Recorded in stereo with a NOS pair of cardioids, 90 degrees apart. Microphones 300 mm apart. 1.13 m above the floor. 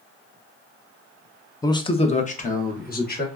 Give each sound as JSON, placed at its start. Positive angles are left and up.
{"t": 1.6, "sound": "a man speaking", "azimuth_deg": 10, "distance_m": 0.5}